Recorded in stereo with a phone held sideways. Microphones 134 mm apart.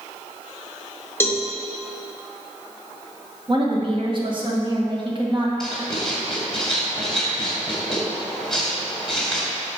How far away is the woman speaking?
About 1.6 m.